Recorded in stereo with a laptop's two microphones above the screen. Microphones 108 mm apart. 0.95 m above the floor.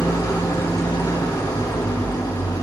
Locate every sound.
0.0 s an engine running: 40° left (ahead or behind), 2.5 m